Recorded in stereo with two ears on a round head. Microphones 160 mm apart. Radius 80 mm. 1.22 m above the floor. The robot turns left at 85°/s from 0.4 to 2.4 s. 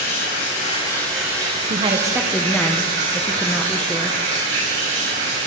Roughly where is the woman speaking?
Behind right.